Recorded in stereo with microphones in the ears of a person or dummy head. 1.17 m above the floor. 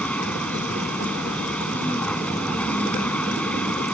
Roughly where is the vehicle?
Centre.